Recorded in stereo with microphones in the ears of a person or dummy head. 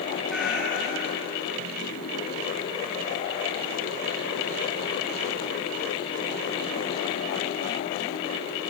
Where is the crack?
I don't hear a crack.